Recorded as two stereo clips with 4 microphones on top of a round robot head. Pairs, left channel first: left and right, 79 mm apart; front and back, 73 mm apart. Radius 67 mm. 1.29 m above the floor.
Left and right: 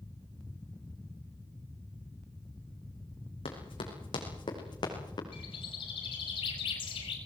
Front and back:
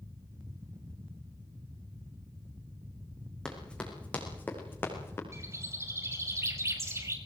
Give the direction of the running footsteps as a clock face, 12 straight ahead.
9 o'clock.